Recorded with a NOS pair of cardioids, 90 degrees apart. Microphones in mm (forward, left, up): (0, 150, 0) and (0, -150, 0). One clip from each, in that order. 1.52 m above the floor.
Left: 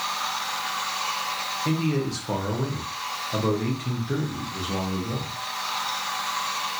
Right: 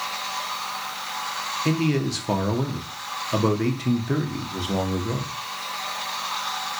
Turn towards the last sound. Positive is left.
turn(degrees=-30)